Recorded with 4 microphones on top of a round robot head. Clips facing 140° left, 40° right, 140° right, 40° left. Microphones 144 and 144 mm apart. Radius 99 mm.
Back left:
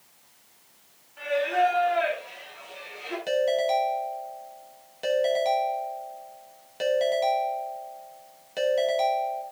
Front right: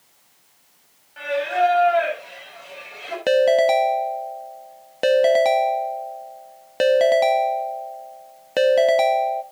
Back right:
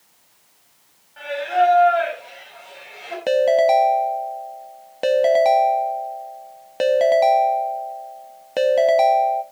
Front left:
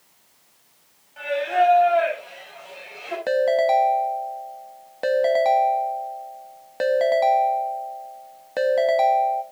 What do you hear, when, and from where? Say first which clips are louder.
1.2 s singing: front right 3 dB, back right 1 dB; 35° right, 5.5 m
3.3 s a ringtone: front right 8 dB, back right 4 dB; 65° right, 0.7 m